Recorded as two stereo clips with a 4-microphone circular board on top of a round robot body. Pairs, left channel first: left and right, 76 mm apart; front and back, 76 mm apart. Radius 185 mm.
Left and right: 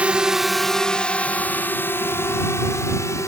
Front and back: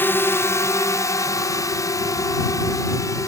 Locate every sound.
0.0 s a drone: 30° right; by 3.3 s 45° left